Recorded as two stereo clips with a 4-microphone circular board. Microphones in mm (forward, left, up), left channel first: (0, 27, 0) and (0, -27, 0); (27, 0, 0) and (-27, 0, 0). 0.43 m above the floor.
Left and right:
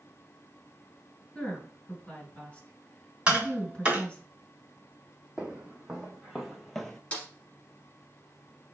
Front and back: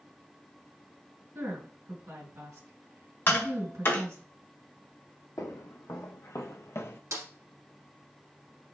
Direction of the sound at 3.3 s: 30° right.